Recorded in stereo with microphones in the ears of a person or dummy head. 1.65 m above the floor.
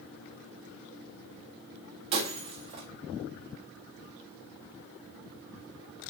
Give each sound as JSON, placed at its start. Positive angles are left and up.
{"t": 2.1, "sound": "breaking glass", "side_deg": -30, "distance_m": 1.6}